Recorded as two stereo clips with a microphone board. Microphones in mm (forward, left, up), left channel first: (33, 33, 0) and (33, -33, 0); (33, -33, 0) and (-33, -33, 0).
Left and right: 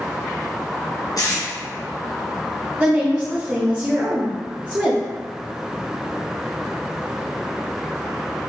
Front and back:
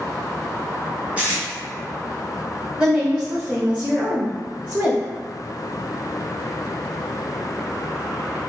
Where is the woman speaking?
125° right, 0.9 m.